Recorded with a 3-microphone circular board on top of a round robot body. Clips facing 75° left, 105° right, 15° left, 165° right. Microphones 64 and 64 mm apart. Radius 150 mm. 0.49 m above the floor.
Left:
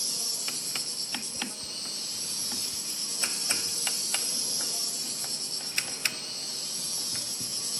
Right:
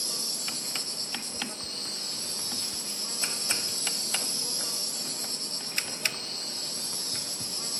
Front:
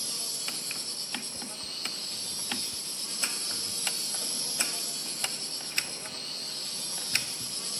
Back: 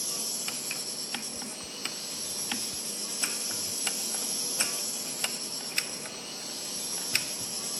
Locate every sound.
0.0 s an insect: 90° right, 1.2 m